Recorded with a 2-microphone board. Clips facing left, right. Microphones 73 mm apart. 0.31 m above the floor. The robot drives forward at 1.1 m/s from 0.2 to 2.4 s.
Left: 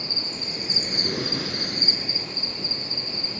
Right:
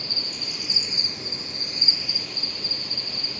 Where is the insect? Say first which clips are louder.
Left 2 dB; 25° left (ahead or behind), 1.4 m; by 3.4 s 30° left (ahead or behind), 1.3 m.